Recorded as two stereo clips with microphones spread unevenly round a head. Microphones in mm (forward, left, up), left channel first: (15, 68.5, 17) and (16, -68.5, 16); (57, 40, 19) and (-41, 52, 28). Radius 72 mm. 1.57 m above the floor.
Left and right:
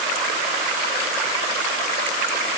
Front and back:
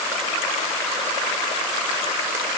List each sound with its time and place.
Only background noise.